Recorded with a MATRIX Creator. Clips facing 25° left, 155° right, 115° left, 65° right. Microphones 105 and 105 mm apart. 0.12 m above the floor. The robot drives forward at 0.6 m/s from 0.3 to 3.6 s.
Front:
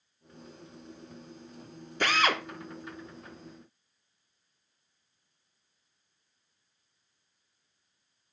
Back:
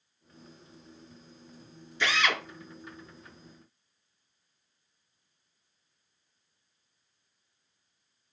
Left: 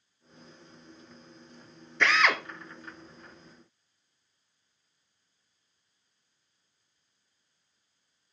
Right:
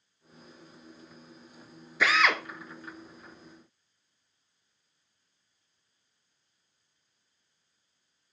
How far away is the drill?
About 0.7 m.